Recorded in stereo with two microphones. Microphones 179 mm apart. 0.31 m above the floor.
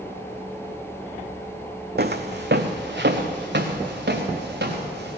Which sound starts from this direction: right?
Footsteps, at 2.0 s.